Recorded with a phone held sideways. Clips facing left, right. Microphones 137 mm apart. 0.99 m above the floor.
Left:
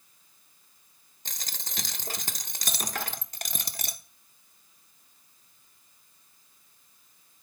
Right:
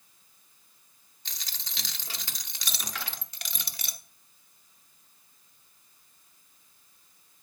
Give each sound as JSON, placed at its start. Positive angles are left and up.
{"t": 1.2, "sound": "a dropped coin", "side_deg": 45, "distance_m": 0.9}